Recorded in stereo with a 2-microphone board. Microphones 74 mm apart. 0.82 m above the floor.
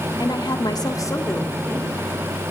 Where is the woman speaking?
70° left (ahead or behind), 1.6 m; by 2.4 s 15° left (ahead or behind), 3 m.